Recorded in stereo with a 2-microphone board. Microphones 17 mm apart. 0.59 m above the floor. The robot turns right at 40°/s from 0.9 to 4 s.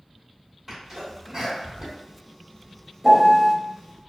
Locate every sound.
0.7 s a sneeze: 15° right (ahead or behind), 1.4 m; by 2.0 s 35° right (ahead or behind), 1.4 m
3.0 s a piano: 45° right (ahead or behind), 0.9 m; by 3.5 s 25° right (ahead or behind), 0.9 m